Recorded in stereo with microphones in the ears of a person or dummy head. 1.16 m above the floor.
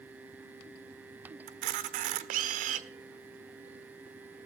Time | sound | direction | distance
1.5 | a camera shutter | 50° right (ahead or behind) | 1.2 m